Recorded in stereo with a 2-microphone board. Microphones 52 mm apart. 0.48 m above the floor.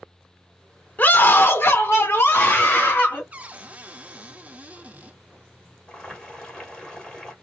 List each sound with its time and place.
1.0 s a scream: 30° left (ahead or behind), 1.0 m; by 3.2 s 40° left (ahead or behind), 1.9 m
3.3 s a cupboard door: 30° right (ahead or behind), 0.5 m
5.9 s boiling: 15° left (ahead or behind), 2.5 m